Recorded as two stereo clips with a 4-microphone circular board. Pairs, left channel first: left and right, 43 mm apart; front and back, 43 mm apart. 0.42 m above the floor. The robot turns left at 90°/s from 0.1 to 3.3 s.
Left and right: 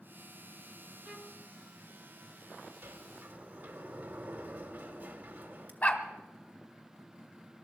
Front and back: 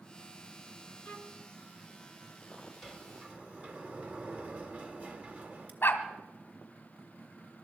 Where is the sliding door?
90° right, 1.5 m; by 5.7 s 135° right, 1.5 m.